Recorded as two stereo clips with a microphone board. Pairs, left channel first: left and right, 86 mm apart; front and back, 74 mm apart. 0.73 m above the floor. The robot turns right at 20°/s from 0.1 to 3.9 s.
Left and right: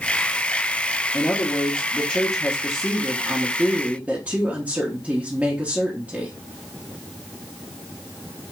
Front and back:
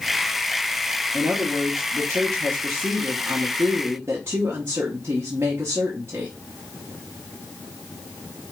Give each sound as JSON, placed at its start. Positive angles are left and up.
{"t": 1.1, "sound": "a woman speaking", "azimuth_deg": 150, "distance_m": 1.0}